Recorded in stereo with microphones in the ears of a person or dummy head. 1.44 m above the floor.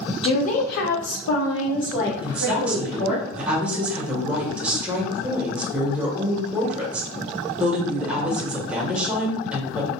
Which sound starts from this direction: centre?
A woman speaking, at 2.2 s.